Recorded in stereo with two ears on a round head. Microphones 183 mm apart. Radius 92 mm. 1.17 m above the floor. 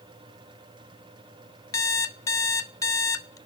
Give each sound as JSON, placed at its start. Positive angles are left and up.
{"t": 1.7, "sound": "an alarm clock", "side_deg": 15, "distance_m": 0.8}